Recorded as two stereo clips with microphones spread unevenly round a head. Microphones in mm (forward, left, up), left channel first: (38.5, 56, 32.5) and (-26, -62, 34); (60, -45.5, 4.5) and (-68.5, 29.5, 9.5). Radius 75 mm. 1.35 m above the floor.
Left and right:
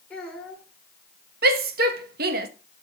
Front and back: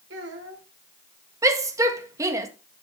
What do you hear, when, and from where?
0.1 s a child speaking: 145° left, 2.5 m
1.4 s a shout: 140° right, 1.8 m